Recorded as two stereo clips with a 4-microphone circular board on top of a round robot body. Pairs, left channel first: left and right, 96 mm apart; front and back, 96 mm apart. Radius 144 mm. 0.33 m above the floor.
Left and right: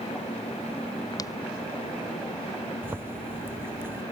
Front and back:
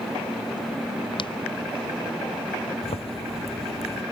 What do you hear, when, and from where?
1.1 s footsteps: 35° left
2.8 s a zipper: 20° right